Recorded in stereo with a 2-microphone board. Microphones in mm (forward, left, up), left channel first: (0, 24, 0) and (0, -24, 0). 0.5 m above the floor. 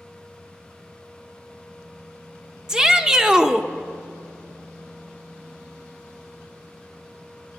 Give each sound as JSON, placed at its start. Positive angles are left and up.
{"t": 2.7, "sound": "a shout", "side_deg": -10, "distance_m": 0.7}